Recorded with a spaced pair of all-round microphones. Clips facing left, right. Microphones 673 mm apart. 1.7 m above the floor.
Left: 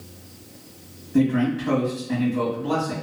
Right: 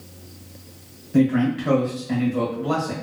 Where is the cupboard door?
No cupboard door in this recording.